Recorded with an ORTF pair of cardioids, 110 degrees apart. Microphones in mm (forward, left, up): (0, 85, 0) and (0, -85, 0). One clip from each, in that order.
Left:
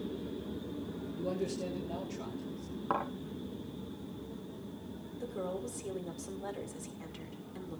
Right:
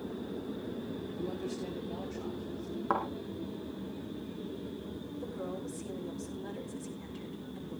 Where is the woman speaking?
55° left, 7 m.